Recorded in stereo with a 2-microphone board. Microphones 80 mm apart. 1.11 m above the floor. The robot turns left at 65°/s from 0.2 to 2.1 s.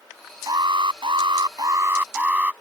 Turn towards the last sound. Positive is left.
turn(degrees=-160)